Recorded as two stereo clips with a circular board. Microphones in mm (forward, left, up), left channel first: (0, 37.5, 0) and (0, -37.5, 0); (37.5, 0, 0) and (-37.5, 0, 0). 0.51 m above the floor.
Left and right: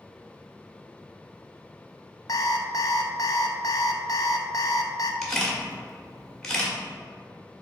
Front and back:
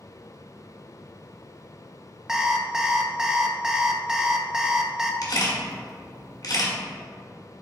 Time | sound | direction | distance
2.3 | an alarm clock | 100° left | 0.6 m
5.2 | a camera shutter | 10° left | 1.6 m